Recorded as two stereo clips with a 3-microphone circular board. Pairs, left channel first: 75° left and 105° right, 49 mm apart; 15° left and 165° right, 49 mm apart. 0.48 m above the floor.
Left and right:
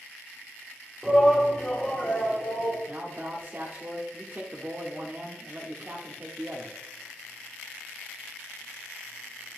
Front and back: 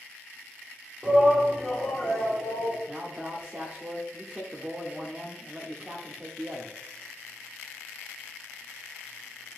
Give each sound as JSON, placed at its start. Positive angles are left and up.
{"t": 1.0, "sound": "a shout", "azimuth_deg": -170, "distance_m": 0.8}
{"t": 2.9, "sound": "a man speaking", "azimuth_deg": -110, "distance_m": 0.9}